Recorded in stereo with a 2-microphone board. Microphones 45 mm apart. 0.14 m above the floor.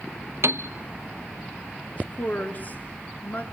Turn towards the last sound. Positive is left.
turn(degrees=40)  # may be behind; listen again after turning